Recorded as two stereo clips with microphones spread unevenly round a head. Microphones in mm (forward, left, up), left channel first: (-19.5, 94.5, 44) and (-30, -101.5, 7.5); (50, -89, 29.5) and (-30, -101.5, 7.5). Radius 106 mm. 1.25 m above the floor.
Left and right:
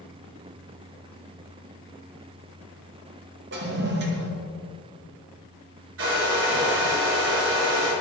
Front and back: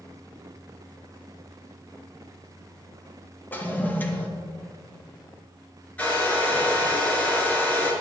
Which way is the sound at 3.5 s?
65° right.